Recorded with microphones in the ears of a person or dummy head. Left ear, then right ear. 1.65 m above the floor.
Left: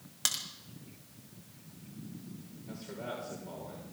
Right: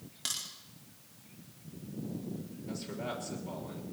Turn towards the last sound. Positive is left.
turn(degrees=-25)  # may be behind; listen again after turning